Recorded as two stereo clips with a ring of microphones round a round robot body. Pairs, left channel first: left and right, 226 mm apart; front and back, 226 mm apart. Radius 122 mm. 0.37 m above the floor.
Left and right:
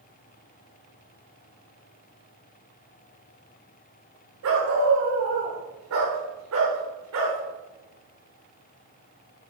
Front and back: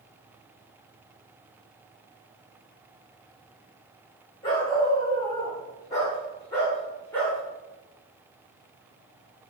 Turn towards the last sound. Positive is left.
turn(degrees=-85)